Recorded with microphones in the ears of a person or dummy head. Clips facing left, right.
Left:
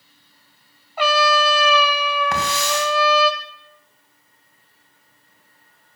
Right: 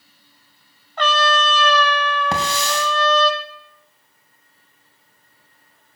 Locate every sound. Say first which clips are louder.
1.0 s a trumpet: left 1 dB; 5° left (ahead or behind), 0.6 m
2.3 s a hiss: even; 25° right (ahead or behind), 2.5 m